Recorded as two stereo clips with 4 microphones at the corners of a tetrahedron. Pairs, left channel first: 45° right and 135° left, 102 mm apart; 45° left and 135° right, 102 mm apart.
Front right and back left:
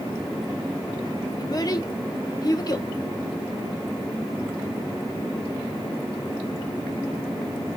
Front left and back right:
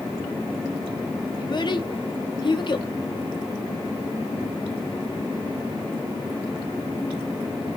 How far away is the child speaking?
About 1.0 m.